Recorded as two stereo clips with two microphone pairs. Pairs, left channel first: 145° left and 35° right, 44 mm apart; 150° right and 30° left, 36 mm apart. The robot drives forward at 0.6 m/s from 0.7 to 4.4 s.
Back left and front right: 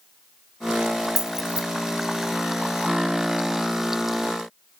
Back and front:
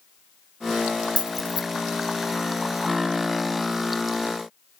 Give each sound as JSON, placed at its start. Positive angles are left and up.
{"t": 1.2, "sound": "keys jangling", "azimuth_deg": 150, "distance_m": 0.6}